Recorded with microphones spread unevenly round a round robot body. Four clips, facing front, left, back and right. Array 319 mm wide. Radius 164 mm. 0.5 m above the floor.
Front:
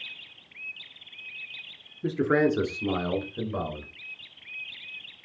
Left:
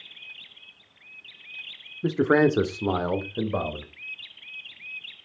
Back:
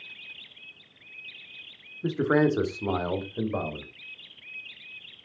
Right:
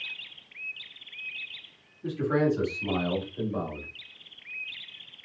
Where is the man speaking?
75° left, 1.3 m; by 3.9 s 85° left, 3 m.